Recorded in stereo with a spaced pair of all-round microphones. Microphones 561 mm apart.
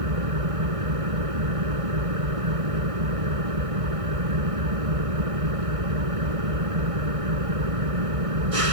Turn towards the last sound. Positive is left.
turn(degrees=-75)  # may be behind; listen again after turning